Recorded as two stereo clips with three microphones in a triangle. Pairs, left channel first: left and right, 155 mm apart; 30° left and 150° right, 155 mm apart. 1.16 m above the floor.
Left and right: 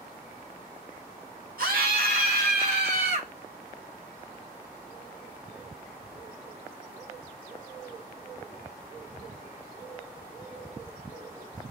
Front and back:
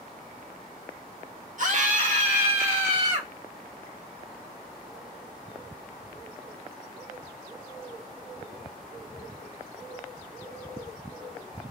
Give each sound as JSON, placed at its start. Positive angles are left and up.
{"t": 1.6, "sound": "a scream", "azimuth_deg": -110, "distance_m": 1.5}